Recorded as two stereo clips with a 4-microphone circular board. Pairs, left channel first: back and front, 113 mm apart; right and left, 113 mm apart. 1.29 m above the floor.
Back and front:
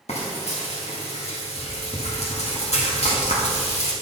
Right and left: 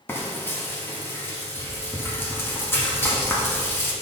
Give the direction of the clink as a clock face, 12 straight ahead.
No clink in this recording.